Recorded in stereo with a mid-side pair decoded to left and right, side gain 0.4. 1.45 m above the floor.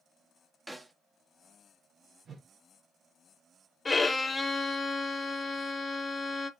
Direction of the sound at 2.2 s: 55° right.